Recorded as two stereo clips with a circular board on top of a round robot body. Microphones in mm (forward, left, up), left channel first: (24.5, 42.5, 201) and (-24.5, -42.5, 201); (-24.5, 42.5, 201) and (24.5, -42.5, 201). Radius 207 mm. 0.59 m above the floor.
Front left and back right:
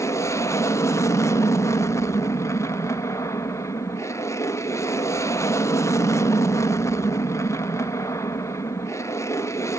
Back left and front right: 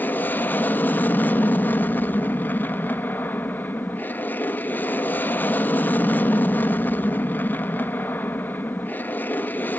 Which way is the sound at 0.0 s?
70° left.